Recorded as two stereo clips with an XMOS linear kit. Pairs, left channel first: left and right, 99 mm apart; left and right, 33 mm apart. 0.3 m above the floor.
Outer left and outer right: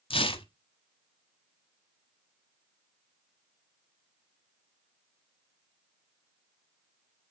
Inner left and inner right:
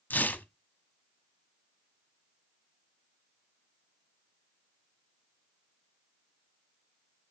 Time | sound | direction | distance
0.1 | tearing paper | 65° left (ahead or behind) | 0.8 m